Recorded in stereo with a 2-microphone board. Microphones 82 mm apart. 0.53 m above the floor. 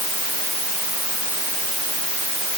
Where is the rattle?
No rattle in this recording.